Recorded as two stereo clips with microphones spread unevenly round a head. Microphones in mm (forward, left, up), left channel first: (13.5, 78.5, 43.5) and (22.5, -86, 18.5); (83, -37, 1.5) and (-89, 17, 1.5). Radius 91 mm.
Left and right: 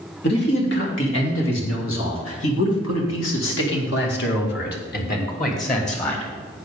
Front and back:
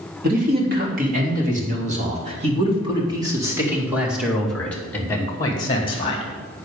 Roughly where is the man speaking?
Behind left.